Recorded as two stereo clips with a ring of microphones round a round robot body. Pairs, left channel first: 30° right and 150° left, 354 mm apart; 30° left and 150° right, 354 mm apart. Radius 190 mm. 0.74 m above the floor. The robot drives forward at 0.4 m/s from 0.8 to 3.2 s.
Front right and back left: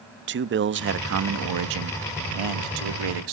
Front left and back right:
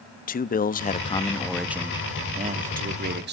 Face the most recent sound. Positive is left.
turn(degrees=150)